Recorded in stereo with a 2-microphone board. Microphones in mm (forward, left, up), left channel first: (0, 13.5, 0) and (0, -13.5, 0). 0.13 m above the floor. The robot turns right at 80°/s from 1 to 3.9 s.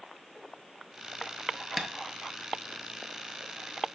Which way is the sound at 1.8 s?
10° right (ahead or behind).